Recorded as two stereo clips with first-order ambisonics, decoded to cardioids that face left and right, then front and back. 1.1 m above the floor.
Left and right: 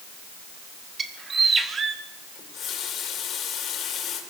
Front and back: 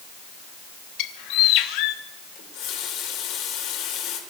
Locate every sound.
1.0 s a bird: 20° right, 1.1 m
2.4 s a running tap: 35° left, 3 m